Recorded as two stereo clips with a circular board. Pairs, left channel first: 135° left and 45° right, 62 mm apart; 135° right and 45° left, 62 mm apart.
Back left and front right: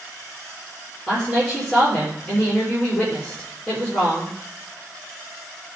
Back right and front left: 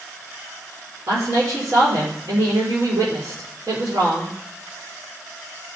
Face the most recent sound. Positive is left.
turn(degrees=60)